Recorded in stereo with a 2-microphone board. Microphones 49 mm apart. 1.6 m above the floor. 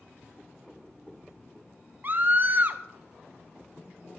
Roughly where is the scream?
Right.